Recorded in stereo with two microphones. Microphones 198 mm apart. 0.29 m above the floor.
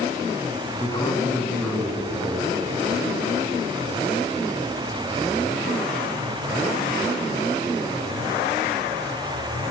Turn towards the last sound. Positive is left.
turn(degrees=-15)  # may be behind; listen again after turning